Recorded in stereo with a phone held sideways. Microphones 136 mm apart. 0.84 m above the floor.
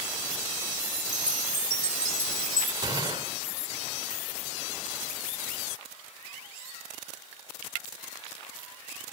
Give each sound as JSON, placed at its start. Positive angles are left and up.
{"t": 1.0, "sound": "a chime", "side_deg": -25, "distance_m": 3.0}
{"t": 2.8, "sound": "a gunshot", "side_deg": -30, "distance_m": 2.5}